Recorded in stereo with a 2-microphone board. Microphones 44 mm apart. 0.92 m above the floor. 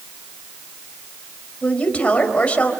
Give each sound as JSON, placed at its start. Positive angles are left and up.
{"t": 1.6, "sound": "a woman speaking", "side_deg": 25, "distance_m": 4.0}